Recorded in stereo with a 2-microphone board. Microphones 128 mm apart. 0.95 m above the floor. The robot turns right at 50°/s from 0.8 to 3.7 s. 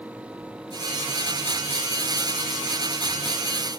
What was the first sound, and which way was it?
Only background noise.